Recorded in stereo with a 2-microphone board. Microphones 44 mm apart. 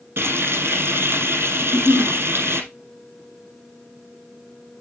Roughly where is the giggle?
Centre.